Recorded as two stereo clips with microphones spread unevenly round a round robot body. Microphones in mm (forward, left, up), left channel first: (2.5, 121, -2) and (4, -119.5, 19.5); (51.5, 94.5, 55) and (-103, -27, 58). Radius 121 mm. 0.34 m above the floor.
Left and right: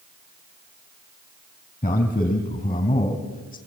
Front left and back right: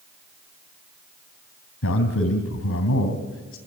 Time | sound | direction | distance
1.8 | a man speaking | 25° left | 2.5 m